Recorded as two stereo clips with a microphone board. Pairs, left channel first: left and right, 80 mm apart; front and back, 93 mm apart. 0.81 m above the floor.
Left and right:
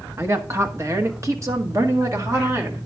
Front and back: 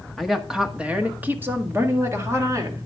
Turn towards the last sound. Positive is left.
turn(degrees=-135)